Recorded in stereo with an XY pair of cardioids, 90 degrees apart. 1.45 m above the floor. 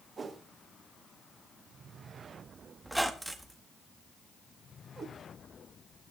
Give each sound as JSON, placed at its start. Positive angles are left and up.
{"t": 0.2, "sound": "a whoosh", "azimuth_deg": -45, "distance_m": 1.9}
{"t": 2.8, "sound": "a squeak", "azimuth_deg": -10, "distance_m": 1.6}
{"t": 5.0, "sound": "a cat meowing", "azimuth_deg": -40, "distance_m": 4.0}